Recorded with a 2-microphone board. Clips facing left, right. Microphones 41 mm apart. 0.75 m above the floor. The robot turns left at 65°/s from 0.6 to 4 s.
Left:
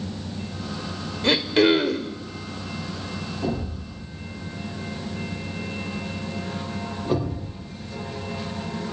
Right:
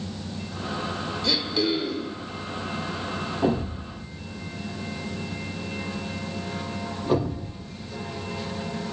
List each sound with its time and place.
1.2 s throat clearing: 130° left, 1.8 m; by 2.2 s 70° left, 1.8 m
3.4 s a thud: 45° right (ahead or behind), 9.5 m; by 7.5 s 5° right (ahead or behind), 9.5 m